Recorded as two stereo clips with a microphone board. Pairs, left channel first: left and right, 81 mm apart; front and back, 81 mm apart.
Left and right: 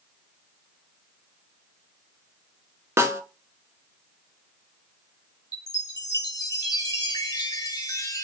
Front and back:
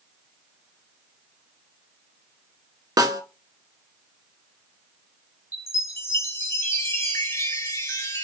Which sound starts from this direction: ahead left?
A chime, at 5.5 s.